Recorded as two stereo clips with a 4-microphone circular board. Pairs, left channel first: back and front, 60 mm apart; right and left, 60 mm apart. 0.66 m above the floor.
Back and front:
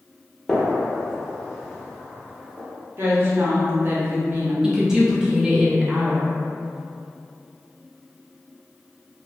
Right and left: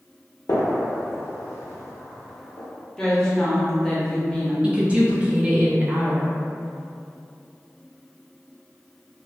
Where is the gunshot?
95° right, 0.7 m.